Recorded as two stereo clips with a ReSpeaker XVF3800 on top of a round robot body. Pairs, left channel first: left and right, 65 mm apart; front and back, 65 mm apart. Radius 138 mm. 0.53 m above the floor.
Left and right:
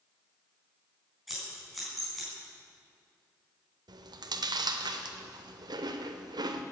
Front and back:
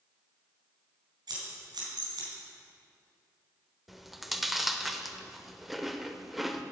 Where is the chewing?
90° right, 0.8 m.